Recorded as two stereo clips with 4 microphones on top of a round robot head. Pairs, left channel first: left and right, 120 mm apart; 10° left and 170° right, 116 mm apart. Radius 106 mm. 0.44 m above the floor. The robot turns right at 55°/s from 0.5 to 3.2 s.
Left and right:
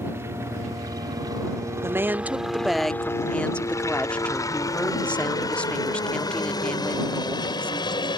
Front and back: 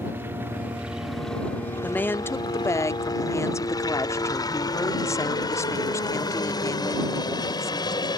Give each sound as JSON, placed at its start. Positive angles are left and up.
{"t": 0.0, "sound": "a helicopter", "azimuth_deg": -130}
{"t": 1.8, "sound": "a woman speaking", "azimuth_deg": -55}